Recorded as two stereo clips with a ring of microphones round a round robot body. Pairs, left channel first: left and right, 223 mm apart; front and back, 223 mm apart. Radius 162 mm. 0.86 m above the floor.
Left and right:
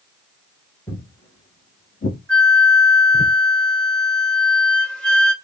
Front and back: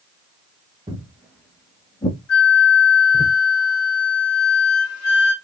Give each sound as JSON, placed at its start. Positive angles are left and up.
{"t": 0.9, "sound": "footsteps", "azimuth_deg": 160, "distance_m": 0.8}
{"t": 2.3, "sound": "a flute", "azimuth_deg": 5, "distance_m": 1.6}